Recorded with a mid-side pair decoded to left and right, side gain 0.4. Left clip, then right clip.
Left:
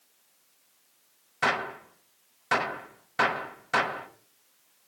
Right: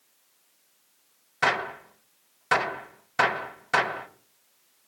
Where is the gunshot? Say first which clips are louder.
Right 2 dB; 25° right, 5 m.